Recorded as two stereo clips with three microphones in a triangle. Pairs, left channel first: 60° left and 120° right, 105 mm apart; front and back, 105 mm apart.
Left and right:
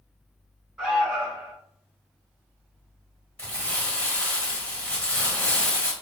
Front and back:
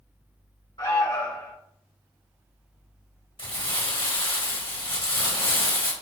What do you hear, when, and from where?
0.8 s an alarm: 30° right, 1.5 m
3.4 s crumpling: 15° right, 1.3 m